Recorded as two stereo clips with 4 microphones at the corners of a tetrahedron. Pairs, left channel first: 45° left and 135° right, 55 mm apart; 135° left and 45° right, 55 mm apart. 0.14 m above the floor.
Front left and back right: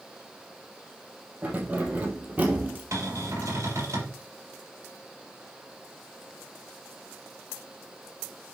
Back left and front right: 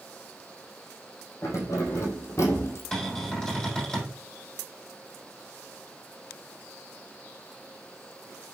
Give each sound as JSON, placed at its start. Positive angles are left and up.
{"t": 1.4, "sound": "keys jangling", "azimuth_deg": 165, "distance_m": 3.5}
{"t": 2.9, "sound": "a cupboard door", "azimuth_deg": -150, "distance_m": 5.0}